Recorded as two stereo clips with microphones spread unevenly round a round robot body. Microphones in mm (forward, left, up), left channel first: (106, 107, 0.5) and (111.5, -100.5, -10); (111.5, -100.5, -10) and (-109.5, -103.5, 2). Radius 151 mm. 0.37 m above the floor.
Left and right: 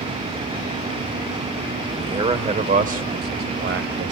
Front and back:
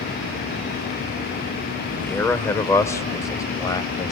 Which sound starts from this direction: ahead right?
A man speaking, at 2.0 s.